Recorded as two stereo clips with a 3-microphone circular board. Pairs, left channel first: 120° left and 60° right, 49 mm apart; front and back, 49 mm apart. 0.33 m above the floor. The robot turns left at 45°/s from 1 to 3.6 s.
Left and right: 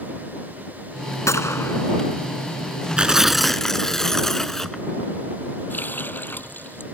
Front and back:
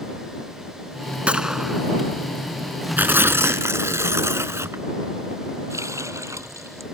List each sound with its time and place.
1.3 s a gunshot: 115° left; by 1.8 s 90° left
3.0 s tearing paper: 130° right; by 4.8 s 160° right
5.7 s a running tap: 170° left